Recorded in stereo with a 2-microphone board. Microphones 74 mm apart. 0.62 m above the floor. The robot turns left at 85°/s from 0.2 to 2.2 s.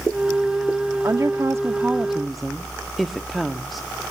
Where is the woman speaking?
85° right, 0.8 m; by 3.9 s straight behind, 0.8 m.